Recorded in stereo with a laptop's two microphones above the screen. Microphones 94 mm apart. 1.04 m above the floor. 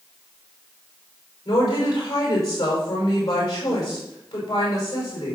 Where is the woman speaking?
45° left (ahead or behind), 5 m.